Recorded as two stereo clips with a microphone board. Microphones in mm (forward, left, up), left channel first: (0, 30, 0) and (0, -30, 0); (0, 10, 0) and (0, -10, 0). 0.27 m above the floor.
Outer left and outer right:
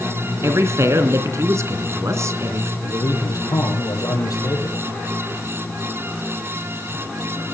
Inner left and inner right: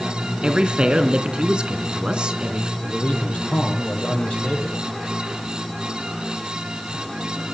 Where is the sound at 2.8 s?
80° left, 10 m.